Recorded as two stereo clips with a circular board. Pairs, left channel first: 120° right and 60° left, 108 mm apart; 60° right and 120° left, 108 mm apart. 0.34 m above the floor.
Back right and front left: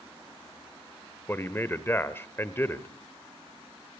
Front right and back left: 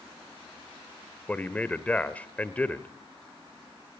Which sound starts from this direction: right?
A man speaking, at 1.3 s.